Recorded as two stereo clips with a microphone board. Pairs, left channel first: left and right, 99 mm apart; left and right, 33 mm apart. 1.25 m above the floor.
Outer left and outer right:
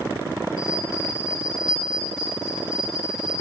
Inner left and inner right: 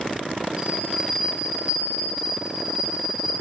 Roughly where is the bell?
Right.